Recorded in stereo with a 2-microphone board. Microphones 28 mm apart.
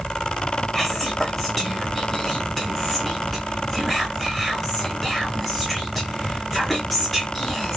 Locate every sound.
0.7 s whispering: 5° left (ahead or behind), 0.6 m